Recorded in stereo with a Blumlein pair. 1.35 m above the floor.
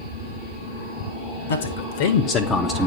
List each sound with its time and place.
1.5 s a man speaking: 65° left, 1.7 m; by 2.9 s 15° right, 0.8 m